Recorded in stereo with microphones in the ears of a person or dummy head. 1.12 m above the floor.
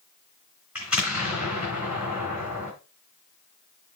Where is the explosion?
5° right (ahead or behind), 3 m.